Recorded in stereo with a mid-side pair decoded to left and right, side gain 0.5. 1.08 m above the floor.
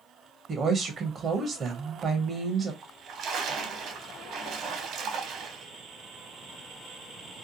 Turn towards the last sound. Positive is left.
turn(degrees=-60)